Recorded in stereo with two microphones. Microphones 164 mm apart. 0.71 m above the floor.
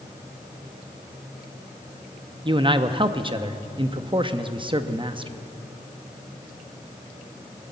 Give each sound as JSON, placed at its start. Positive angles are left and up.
{"t": 2.5, "sound": "a man speaking", "side_deg": -30, "distance_m": 0.7}